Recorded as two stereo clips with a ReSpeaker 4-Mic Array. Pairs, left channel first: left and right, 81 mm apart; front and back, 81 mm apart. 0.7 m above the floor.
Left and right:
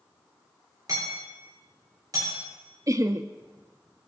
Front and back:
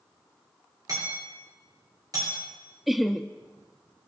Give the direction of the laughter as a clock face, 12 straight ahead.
3 o'clock.